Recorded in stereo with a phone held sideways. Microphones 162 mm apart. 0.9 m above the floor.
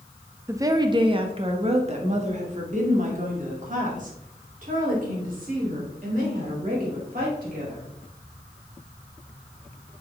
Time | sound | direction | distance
0.5 | a woman speaking | 15° right (ahead or behind) | 0.8 m